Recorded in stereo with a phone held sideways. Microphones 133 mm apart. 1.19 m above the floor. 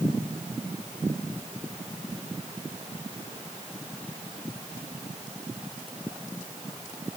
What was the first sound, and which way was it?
Only background noise.